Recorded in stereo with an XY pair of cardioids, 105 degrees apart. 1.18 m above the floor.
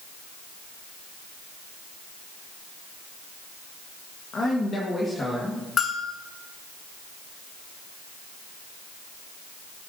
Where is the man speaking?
45° left, 1.4 m; by 5.7 s 25° left, 1.9 m.